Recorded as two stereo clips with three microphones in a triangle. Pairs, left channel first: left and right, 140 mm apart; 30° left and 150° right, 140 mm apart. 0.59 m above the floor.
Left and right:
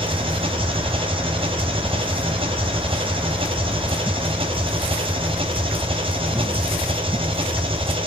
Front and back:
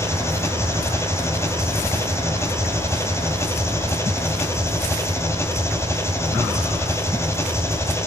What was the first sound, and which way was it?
An engine running, 40° right.